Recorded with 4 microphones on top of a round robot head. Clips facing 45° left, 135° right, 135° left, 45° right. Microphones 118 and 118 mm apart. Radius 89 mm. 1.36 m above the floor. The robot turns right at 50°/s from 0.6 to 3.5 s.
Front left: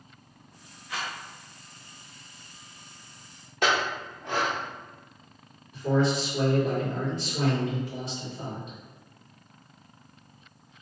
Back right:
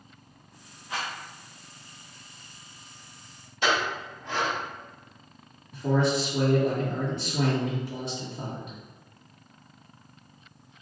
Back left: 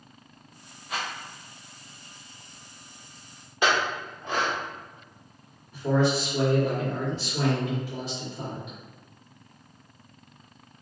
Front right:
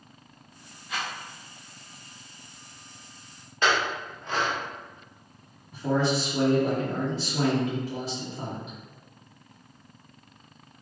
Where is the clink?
60° left, 0.6 m.